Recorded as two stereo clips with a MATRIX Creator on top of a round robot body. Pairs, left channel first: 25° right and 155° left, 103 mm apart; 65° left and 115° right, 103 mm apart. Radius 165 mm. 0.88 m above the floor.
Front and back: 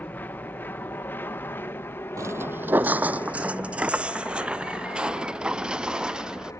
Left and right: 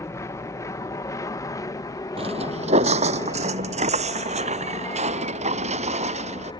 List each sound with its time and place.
0.0 s an aircraft: 35° left
2.2 s footsteps: 145° right; by 6.5 s 120° right